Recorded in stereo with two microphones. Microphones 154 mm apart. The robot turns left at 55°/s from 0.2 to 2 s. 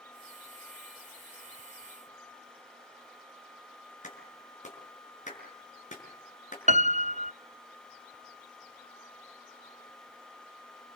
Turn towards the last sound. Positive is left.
turn(degrees=-50)  # may be behind; listen again after turning